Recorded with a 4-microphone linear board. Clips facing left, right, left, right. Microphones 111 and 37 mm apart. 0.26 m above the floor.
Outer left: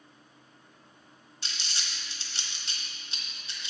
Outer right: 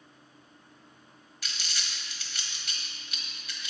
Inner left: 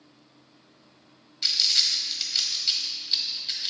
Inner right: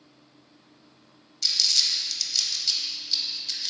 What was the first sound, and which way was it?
Crumpling, 30° left (ahead or behind).